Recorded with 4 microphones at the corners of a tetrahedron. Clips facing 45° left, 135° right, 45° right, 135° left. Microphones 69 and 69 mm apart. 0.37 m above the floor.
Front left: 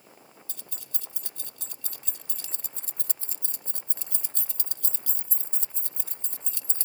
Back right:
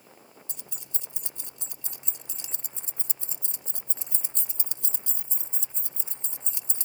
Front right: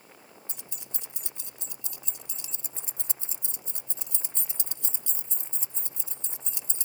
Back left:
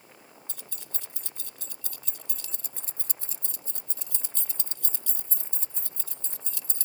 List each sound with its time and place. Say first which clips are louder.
0.5 s keys jangling: even, even; 90° right